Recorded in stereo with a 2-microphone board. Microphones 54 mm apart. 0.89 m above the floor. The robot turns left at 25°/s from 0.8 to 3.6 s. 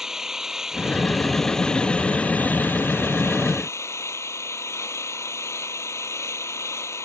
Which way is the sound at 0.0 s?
170° right.